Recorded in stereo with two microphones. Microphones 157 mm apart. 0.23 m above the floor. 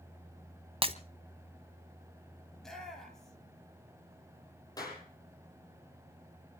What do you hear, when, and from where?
0.8 s breaking glass: 35° right (ahead or behind), 1.0 m
2.5 s a shout: centre (ahead or behind), 5 m
4.8 s a clap: 25° left (ahead or behind), 7.5 m